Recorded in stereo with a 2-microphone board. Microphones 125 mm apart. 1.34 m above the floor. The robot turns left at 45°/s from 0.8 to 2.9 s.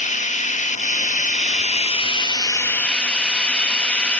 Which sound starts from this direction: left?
Running water, at 0.0 s.